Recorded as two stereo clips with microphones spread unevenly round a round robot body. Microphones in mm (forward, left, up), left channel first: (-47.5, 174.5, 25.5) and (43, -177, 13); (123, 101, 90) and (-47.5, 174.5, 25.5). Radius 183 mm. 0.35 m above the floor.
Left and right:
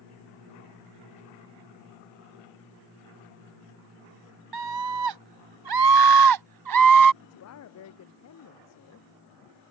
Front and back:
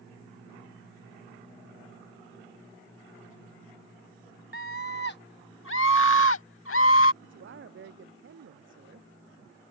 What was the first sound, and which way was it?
A scream, 80° right.